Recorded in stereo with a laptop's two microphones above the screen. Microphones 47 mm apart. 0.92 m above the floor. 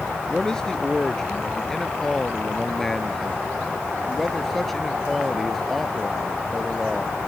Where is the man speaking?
15° left (ahead or behind); by 7.2 s centre (ahead or behind).